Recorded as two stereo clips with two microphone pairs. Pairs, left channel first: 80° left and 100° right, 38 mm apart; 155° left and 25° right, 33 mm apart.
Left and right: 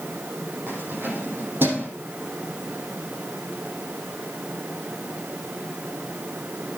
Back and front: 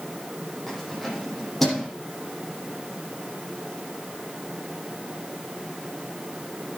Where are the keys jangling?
120° right, 8 m.